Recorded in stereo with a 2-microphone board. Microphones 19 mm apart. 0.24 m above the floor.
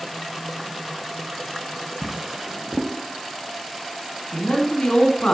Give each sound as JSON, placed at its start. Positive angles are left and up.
{"t": 2.0, "sound": "a drawer", "side_deg": -30, "distance_m": 0.8}
{"t": 4.3, "sound": "a man speaking", "side_deg": 55, "distance_m": 2.5}